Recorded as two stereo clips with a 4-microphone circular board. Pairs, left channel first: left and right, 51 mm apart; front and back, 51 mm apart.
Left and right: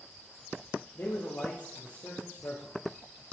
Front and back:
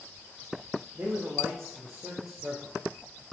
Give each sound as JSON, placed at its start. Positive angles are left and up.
{"t": 0.9, "sound": "a man speaking", "azimuth_deg": 120, "distance_m": 3.0}